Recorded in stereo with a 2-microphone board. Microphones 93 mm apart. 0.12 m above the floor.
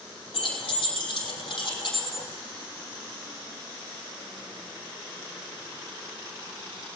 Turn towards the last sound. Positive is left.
turn(degrees=55)  # may be behind; listen again after turning